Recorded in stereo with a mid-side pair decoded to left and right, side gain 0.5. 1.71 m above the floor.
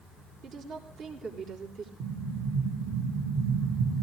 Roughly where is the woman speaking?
Ahead right.